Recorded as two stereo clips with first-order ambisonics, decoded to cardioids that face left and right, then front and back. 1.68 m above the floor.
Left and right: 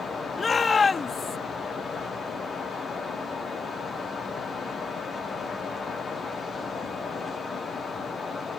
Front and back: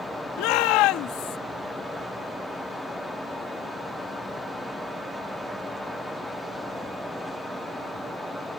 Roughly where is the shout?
Ahead.